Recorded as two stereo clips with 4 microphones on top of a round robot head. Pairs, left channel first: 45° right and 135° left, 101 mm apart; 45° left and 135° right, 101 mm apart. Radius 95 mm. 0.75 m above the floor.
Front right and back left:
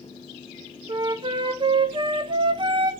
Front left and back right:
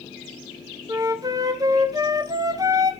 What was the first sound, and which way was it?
A flute, 175° left.